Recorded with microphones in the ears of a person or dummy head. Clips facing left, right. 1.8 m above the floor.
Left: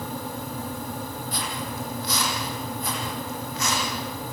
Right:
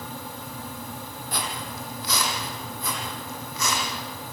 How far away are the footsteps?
About 3 m.